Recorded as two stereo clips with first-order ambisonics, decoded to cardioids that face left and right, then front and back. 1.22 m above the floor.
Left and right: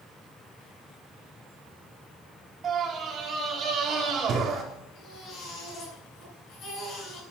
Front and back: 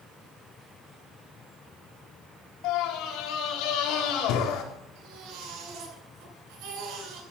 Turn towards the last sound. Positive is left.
turn(degrees=150)